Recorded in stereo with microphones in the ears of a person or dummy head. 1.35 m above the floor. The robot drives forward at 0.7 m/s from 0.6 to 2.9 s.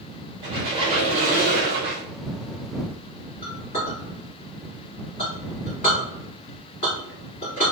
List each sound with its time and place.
0.4 s a squeak: 30° right (ahead or behind), 1.5 m; by 2.0 s 55° right (ahead or behind), 0.8 m
3.4 s a clink: 45° left (ahead or behind), 2.0 m